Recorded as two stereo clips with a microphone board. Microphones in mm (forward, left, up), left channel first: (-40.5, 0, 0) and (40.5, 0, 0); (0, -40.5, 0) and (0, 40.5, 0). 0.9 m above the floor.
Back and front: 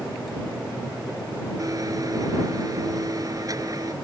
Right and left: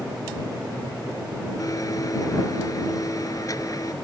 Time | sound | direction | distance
1.6 | a blender | 45° right | ?